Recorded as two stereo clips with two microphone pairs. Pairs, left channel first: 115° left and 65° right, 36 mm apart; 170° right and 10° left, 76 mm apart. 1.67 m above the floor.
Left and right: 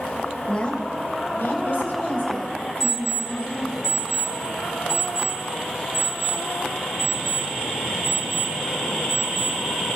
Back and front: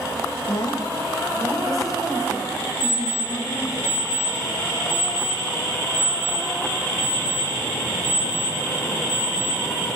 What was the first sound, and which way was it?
A woman speaking, 175° left.